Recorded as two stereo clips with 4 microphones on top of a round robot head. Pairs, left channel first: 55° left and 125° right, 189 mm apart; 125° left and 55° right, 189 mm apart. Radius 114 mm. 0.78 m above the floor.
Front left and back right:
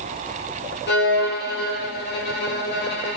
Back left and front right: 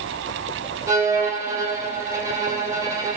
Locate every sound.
0.9 s a violin: 20° left, 2.5 m